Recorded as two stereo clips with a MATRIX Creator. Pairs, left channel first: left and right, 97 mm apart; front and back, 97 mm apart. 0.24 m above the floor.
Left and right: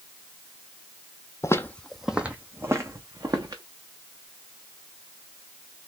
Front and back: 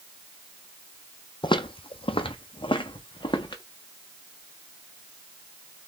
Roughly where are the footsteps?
Ahead left.